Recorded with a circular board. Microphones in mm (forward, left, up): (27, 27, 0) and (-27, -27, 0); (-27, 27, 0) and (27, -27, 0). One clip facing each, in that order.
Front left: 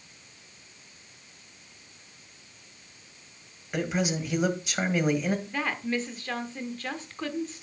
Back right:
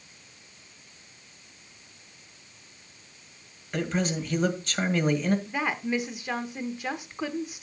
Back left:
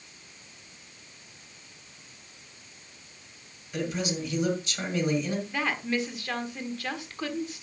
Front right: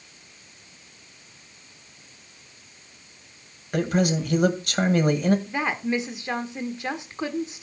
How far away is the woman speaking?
About 1.2 m.